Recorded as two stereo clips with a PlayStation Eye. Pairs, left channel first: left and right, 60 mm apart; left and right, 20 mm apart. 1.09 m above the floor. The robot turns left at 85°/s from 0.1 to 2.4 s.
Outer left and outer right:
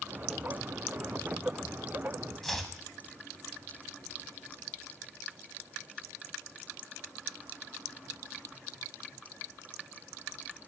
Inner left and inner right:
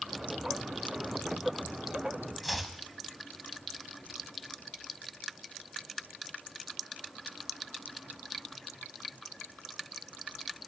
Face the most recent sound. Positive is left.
turn(degrees=5)  # may be behind; listen again after turning